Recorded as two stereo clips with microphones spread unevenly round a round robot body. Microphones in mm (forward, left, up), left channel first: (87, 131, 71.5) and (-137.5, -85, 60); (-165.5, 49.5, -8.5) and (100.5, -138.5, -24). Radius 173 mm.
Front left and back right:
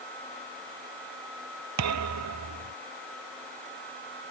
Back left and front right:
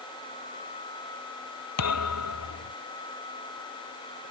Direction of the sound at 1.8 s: 175° right.